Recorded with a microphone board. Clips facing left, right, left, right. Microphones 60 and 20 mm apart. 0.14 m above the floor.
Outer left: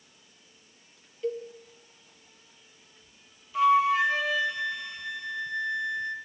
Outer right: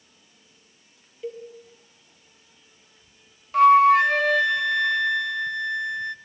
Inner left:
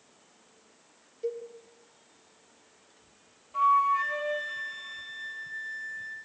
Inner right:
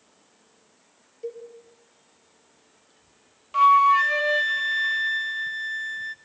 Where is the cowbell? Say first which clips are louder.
Outer left 3 dB, inner left 1 dB; 5° right (ahead or behind), 4.5 m.